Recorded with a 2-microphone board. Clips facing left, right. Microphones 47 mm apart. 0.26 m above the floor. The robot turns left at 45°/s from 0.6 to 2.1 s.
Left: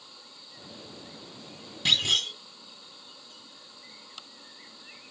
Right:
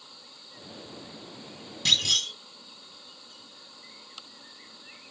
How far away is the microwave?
I don't hear a microwave.